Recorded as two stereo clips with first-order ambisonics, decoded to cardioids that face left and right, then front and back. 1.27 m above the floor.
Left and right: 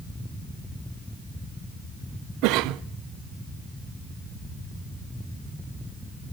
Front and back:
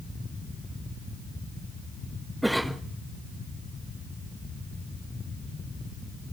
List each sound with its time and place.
2.4 s a cough: 90° right, 0.6 m